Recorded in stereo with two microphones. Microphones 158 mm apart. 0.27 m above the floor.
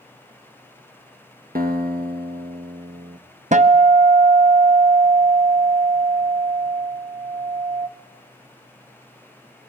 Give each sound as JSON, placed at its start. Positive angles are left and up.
{"t": 1.6, "sound": "a guitar", "side_deg": -70, "distance_m": 2.5}
{"t": 3.5, "sound": "a guitar", "side_deg": -50, "distance_m": 0.8}